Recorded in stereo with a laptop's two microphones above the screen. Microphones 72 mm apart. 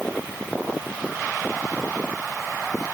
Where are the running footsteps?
I don't hear running footsteps.